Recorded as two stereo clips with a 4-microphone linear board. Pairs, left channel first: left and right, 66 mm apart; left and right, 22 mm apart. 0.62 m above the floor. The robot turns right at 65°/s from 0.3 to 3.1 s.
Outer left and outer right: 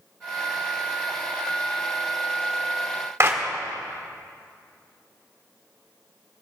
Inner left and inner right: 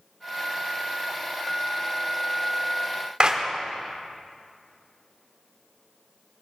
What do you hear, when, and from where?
3.2 s a clap: 40° right (ahead or behind), 1.3 m